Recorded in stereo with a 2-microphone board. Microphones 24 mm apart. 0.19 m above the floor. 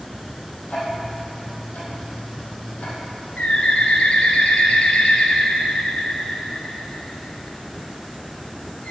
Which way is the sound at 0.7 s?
80° left.